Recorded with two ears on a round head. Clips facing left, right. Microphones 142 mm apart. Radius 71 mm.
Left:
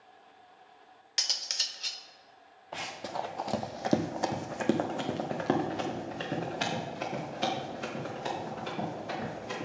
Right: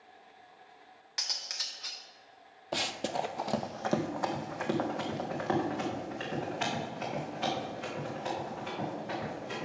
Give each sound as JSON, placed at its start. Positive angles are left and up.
{"t": 1.2, "sound": "cutlery clinking", "side_deg": 30, "distance_m": 0.7}
{"t": 2.7, "sound": "running footsteps", "side_deg": -45, "distance_m": 0.5}